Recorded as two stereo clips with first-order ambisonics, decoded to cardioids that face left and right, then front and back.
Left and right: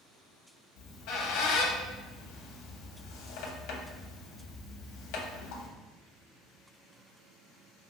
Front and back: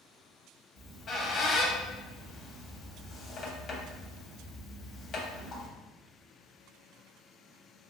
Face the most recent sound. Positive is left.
turn(degrees=65)